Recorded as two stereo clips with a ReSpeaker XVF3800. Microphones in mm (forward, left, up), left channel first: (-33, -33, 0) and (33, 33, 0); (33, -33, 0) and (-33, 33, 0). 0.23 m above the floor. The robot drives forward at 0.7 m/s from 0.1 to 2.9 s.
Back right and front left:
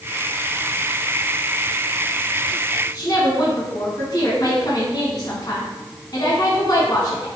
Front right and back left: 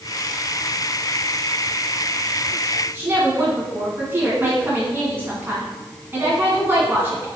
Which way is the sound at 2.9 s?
165° right.